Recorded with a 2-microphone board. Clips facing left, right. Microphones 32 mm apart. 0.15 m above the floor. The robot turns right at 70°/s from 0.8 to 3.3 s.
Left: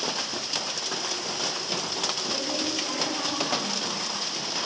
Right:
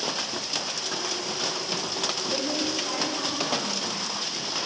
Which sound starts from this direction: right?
A woman speaking, at 2.3 s.